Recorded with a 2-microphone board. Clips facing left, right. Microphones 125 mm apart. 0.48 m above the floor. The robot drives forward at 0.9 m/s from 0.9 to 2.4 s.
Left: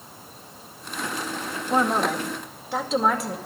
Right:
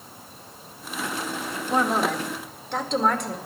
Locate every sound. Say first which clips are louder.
1.7 s a woman speaking: left 1 dB; 5° left (ahead or behind), 1.3 m